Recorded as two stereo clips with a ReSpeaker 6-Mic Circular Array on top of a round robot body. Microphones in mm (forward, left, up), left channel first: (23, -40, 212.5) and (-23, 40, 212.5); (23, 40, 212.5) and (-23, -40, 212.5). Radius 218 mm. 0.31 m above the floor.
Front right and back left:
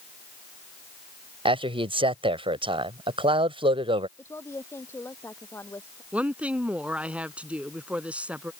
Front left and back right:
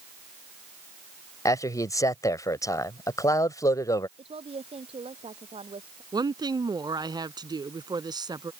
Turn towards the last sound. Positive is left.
turn(degrees=-165)